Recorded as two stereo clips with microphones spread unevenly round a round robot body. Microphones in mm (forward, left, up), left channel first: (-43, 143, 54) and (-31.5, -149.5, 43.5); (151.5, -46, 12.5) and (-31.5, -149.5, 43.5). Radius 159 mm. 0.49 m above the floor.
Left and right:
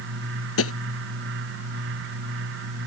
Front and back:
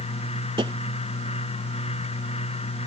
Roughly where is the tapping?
Behind left.